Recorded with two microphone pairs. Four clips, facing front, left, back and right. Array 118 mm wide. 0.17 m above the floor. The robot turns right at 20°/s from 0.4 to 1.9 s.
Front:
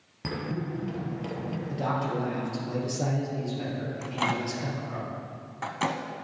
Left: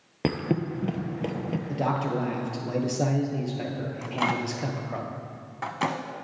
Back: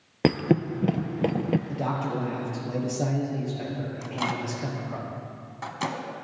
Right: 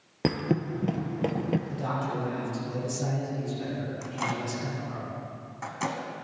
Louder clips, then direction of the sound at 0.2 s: Even, back 10 dB; straight behind.